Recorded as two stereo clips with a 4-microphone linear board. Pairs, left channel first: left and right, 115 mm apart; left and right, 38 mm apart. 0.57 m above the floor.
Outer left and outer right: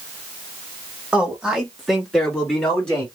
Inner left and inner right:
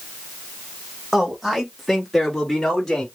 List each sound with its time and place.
1.1 s a man speaking: 10° right (ahead or behind), 1.3 m; by 3.0 s 15° left (ahead or behind), 1.5 m